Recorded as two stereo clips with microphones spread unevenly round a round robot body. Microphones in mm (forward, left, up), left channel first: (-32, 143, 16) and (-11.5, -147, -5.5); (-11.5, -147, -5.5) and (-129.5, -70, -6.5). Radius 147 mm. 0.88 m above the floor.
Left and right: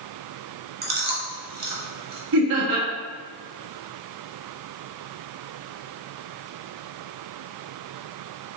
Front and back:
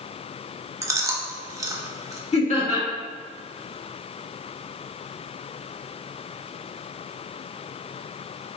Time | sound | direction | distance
0.8 | chewing | 145° right | 0.9 m
2.3 | laughter | 75° right | 1.7 m